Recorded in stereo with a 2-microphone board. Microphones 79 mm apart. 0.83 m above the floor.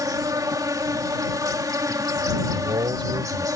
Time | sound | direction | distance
0.0 | an insect | 45° right (ahead or behind) | ?
2.5 | a man speaking | 70° right (ahead or behind) | ?